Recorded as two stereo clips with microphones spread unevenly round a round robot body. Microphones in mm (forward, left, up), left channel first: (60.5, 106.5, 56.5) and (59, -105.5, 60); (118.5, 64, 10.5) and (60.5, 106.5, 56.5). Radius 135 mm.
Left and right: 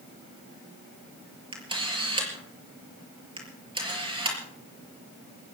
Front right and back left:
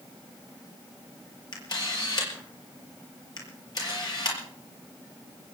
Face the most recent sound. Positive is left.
turn(degrees=-25)